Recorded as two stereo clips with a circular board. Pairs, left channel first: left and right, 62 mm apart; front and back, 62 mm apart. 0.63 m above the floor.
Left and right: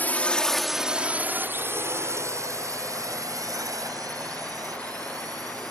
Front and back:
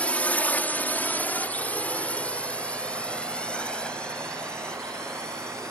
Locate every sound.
0.0 s a drone: 55° left; by 5.7 s 80° right